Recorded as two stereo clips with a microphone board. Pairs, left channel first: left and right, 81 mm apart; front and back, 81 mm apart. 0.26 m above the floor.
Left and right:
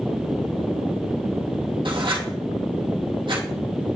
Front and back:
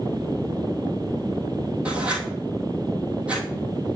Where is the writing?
100° right, 1.7 m.